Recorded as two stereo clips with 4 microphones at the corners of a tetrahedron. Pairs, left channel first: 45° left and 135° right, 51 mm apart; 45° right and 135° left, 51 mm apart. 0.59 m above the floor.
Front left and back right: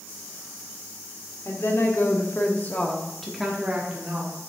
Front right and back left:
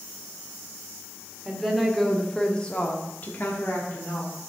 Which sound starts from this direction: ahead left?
A woman speaking, at 1.4 s.